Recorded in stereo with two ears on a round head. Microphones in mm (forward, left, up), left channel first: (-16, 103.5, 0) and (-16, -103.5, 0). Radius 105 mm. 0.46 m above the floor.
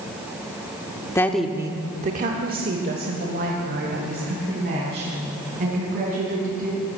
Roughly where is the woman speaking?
Centre.